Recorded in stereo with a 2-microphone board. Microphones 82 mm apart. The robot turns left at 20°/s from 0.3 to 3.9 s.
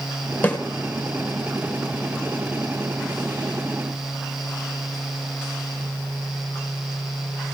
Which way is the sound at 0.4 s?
25° left (ahead or behind).